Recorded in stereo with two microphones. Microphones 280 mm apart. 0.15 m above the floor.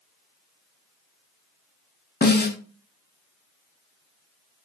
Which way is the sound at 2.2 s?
35° left (ahead or behind).